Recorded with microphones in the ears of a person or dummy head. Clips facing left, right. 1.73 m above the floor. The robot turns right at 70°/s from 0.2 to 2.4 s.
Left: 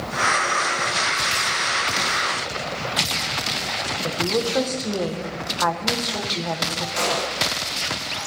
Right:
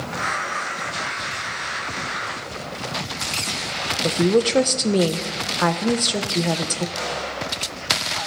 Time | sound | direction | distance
4.0 | a woman speaking | 40° right (ahead or behind) | 1.1 m
7.0 | a gunshot | 65° left (ahead or behind) | 1.7 m